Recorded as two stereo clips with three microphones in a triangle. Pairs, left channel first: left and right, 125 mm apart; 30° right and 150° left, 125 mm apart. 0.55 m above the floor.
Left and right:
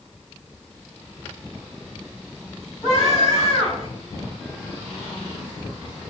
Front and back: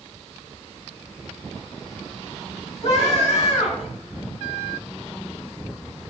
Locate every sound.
2.8 s a scream: straight ahead, 4 m